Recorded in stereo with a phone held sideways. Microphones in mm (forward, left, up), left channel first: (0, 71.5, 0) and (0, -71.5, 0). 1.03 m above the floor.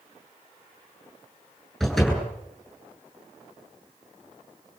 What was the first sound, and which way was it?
A door slam, centre (ahead or behind).